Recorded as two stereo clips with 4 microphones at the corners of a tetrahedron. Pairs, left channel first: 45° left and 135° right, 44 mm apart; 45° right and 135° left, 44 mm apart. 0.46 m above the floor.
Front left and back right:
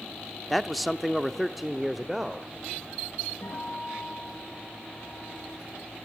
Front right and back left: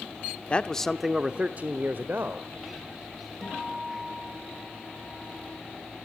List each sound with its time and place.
0.5 s a man speaking: 40° right, 0.8 m; by 2.5 s 135° left, 1.5 m
3.4 s a guitar: 45° left, 7.5 m